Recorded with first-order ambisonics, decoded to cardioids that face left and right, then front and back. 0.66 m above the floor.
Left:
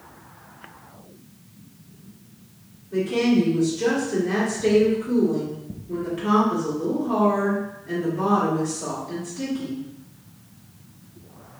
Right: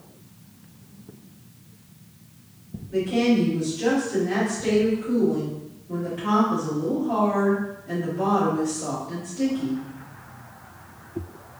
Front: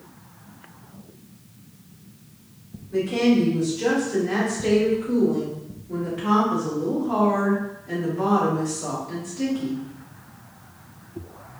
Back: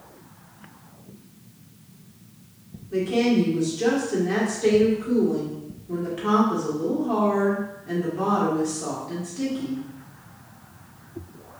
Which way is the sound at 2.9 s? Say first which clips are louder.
Left 1 dB, front 1 dB; 165° left.